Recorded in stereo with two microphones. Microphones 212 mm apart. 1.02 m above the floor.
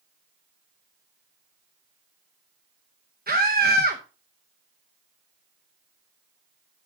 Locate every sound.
3.3 s a scream: 45° right (ahead or behind), 0.9 m